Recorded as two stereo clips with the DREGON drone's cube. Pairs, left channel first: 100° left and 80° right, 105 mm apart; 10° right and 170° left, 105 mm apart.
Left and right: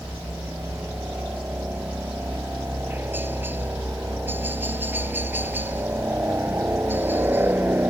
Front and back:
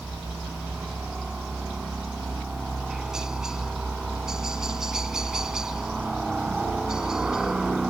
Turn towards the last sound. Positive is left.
turn(degrees=-115)